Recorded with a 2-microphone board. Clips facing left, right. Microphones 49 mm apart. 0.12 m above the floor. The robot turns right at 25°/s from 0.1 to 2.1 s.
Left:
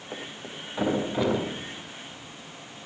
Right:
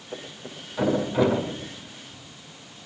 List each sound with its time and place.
0.1 s a thud: 30° left (ahead or behind), 10 m; by 2.2 s 20° right (ahead or behind), 10 m